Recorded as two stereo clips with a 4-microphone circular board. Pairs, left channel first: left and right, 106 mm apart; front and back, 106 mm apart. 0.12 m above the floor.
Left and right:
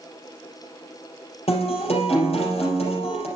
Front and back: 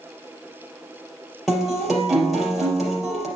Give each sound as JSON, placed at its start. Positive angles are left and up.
{"t": 1.5, "sound": "a guitar", "azimuth_deg": 90, "distance_m": 3.5}